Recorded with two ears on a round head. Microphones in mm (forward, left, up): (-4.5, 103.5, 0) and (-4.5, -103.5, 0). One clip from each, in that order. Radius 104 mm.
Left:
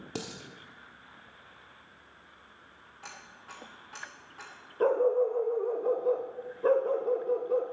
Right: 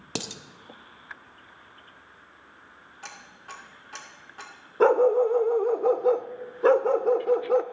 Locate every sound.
0.1 s dishes clattering: 40° right (ahead or behind), 0.9 m
3.0 s ticking: 25° right (ahead or behind), 2.5 m
4.8 s a dog barking: 55° right (ahead or behind), 0.6 m